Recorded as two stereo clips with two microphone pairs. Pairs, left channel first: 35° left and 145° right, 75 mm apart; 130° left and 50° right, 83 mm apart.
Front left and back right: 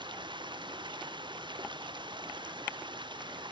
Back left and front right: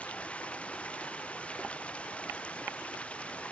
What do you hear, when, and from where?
0.0 s running water: 155° right